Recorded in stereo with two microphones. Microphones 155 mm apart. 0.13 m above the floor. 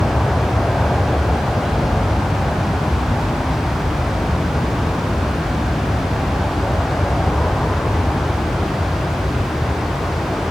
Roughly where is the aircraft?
Centre.